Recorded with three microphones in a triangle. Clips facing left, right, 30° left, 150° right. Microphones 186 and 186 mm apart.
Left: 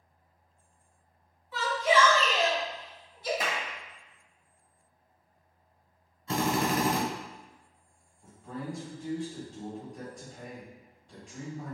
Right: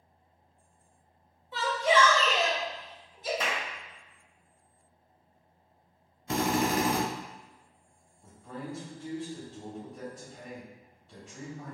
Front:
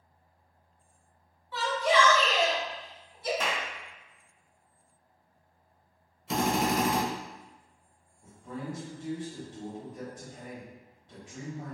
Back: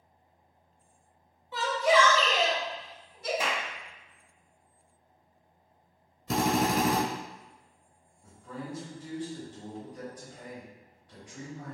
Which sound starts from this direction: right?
A shout, at 1.5 s.